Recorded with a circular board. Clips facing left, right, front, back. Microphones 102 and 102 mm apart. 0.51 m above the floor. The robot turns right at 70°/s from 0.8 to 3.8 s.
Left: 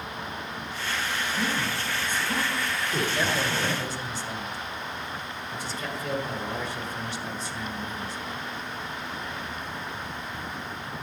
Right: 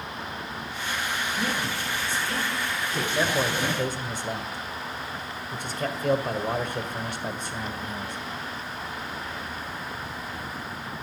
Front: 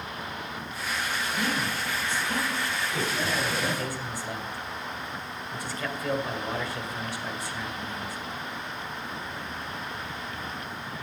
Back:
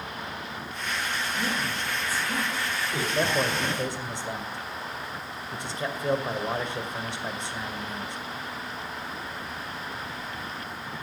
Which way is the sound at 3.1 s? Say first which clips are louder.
Right 2 dB, back 7 dB; 165° right.